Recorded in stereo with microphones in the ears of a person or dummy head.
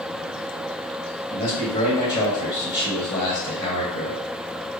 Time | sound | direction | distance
1.3 | a man speaking | 20° left (ahead or behind) | 2.0 m